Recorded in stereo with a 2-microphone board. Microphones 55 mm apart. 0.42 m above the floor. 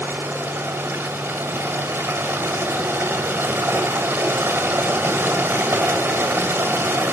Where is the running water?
35° right (ahead or behind), 2 m.